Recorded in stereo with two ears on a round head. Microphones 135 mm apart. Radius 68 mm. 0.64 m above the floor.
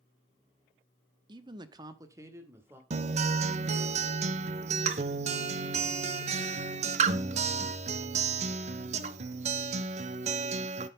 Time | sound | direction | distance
1.3 | a man speaking | 30° right (ahead or behind) | 0.6 m
2.9 | a guitar | 45° right (ahead or behind) | 0.6 m